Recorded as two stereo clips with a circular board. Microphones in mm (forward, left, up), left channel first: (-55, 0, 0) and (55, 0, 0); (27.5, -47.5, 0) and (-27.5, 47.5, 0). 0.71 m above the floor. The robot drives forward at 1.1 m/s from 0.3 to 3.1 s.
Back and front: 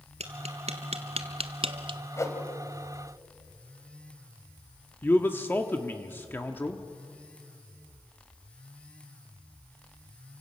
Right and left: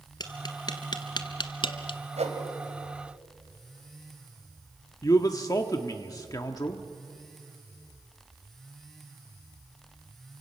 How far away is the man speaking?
About 1.2 m.